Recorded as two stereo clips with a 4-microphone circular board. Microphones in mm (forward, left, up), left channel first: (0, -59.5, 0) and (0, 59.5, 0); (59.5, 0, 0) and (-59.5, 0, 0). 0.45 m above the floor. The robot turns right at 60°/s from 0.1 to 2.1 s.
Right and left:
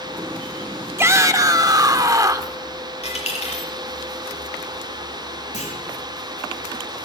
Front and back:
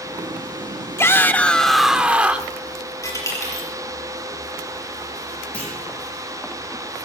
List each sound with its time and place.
1.0 s a shout: 45° left, 0.9 m; by 2.5 s 110° left, 0.9 m
3.0 s a dropped coin: 60° right, 6 m
5.5 s a clunk: 80° right, 8.5 m